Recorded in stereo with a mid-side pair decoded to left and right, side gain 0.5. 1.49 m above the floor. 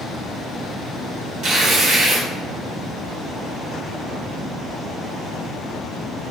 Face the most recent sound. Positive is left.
turn(degrees=-65)